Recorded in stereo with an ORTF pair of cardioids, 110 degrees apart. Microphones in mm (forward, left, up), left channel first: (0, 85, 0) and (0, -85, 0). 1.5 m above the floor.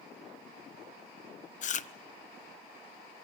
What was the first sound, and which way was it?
Chewing, 45° left.